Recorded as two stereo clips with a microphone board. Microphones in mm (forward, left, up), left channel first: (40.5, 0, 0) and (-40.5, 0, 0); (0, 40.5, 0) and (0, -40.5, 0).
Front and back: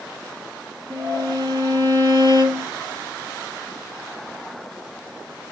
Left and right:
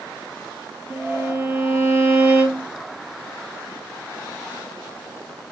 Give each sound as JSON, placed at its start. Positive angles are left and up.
{"t": 0.9, "sound": "a violin", "azimuth_deg": -155, "distance_m": 3.0}